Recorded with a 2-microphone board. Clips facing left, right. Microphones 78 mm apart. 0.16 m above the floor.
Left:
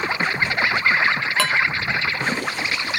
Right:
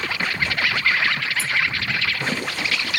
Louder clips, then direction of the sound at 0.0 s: Left 3 dB; 25° left (ahead or behind).